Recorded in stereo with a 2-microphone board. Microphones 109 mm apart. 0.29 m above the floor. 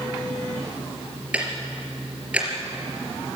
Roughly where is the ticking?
Centre.